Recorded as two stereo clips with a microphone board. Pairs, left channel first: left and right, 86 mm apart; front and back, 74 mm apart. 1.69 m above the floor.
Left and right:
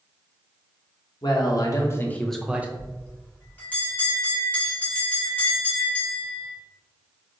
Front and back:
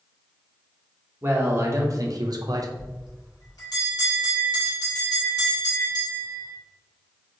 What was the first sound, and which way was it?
A man speaking, 120° left.